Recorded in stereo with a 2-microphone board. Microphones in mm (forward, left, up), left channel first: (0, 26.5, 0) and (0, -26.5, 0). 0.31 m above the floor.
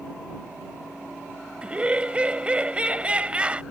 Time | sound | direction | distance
1.6 | laughter | 20° right (ahead or behind) | ?